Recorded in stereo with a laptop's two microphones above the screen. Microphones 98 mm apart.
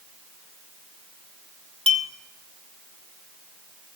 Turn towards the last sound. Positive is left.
turn(degrees=-80)